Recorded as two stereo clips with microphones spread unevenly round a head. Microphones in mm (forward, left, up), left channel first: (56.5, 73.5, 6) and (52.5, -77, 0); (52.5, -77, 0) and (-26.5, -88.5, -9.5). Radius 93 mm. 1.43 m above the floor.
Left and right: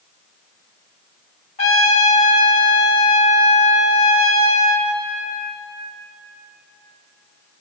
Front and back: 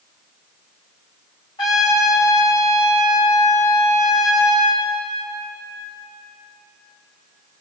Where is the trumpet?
45° left, 4 m.